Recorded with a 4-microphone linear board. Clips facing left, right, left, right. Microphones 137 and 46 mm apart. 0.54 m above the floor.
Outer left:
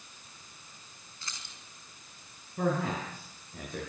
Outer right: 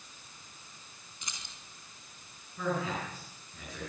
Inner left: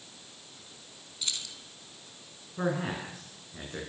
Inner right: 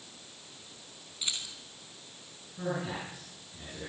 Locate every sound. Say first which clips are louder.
1.2 s keys jangling: even, even; 20° right (ahead or behind), 4 m
2.6 s a man speaking: outer left 3 dB, inner left 3 dB; 50° left (ahead or behind), 7.5 m